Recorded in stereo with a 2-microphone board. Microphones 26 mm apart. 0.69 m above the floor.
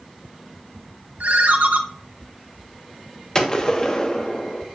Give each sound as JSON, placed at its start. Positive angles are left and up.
{"t": 1.2, "sound": "a ringtone", "side_deg": -65, "distance_m": 0.6}
{"t": 3.4, "sound": "a gunshot", "side_deg": 30, "distance_m": 0.9}